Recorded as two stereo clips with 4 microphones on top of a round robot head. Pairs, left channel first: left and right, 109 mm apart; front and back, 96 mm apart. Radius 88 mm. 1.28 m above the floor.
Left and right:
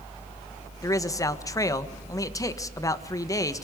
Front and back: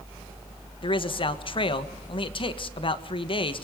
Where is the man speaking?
30° left, 1.7 m.